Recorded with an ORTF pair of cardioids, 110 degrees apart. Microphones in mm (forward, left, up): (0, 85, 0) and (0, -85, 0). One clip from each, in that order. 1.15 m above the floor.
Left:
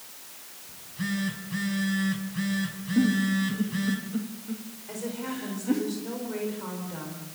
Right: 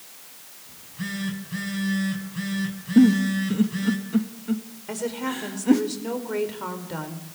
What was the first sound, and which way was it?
A phone buzzing, straight ahead.